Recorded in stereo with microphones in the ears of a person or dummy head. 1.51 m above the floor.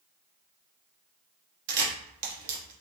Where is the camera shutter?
55° right (ahead or behind), 1.2 m.